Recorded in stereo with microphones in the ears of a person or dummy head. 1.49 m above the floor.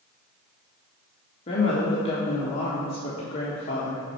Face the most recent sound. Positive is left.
turn(degrees=35)  # may be behind; listen again after turning